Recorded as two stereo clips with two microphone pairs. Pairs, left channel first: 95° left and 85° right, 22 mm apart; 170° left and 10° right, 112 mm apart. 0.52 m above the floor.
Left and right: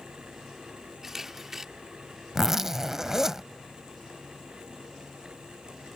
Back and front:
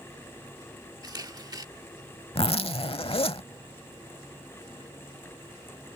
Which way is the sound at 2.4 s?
160° right.